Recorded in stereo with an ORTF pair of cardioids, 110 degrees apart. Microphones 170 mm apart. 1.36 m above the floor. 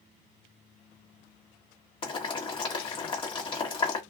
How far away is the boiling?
About 1.3 m.